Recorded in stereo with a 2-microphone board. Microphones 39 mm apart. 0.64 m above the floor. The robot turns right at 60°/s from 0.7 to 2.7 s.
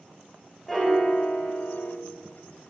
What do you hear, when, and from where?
0.7 s a piano: 10° left, 1.3 m; by 1.9 s 85° left, 1.3 m